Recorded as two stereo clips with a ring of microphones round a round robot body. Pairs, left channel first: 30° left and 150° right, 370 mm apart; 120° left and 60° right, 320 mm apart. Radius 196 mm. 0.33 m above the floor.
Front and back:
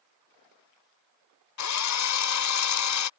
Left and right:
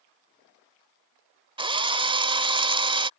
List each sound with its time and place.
1.6 s a drill: 10° left